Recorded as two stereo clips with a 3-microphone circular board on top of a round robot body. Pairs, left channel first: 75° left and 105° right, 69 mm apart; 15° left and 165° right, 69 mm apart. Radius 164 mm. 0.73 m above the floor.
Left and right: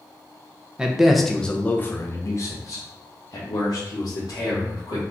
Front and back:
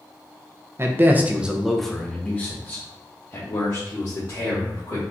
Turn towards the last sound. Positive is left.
turn(degrees=55)